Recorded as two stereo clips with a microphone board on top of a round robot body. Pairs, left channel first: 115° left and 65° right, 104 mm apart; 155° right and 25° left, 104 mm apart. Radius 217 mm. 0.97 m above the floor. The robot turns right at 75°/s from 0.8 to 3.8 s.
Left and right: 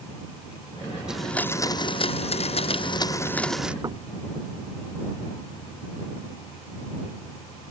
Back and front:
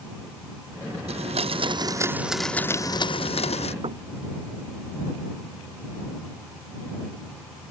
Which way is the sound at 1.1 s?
15° left.